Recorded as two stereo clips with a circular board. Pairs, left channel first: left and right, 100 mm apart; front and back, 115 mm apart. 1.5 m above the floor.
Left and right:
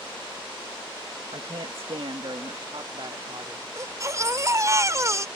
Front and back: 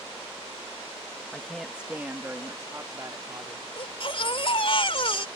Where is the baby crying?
35° right.